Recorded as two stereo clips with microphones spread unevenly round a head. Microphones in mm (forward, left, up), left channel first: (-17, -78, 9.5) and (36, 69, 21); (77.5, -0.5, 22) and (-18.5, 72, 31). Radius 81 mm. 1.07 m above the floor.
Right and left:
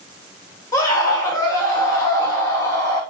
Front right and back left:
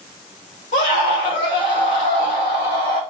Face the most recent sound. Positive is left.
turn(degrees=-40)